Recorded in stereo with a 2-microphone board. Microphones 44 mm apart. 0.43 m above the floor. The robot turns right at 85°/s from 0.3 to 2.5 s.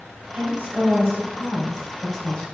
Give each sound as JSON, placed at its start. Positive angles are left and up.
{"t": 0.3, "sound": "a woman speaking", "azimuth_deg": -150, "distance_m": 1.9}